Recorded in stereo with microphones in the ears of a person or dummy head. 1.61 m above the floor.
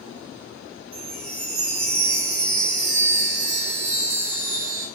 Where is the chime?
50° right (ahead or behind), 0.8 m.